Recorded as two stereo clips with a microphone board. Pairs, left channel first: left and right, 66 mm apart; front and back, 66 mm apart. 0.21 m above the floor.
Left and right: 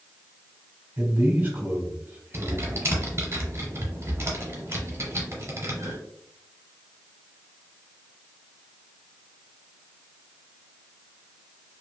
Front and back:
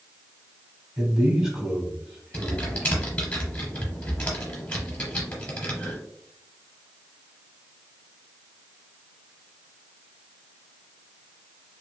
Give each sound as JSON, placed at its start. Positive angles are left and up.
{"t": 1.0, "sound": "a man speaking", "azimuth_deg": -110, "distance_m": 1.2}
{"t": 2.3, "sound": "typing on a keyboard", "azimuth_deg": -65, "distance_m": 1.0}